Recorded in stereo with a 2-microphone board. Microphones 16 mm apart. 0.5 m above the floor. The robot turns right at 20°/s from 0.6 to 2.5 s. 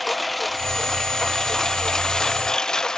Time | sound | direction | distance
0.0 | a lawn mower | 5° left (ahead or behind) | ?